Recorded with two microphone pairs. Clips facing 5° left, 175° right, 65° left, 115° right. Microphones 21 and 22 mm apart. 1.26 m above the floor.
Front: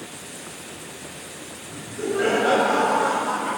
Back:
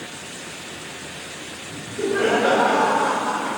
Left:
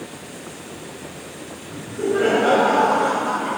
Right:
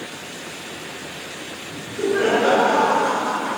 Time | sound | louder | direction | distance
1.7 | laughter | back 3 dB, even | 155° right | 6 m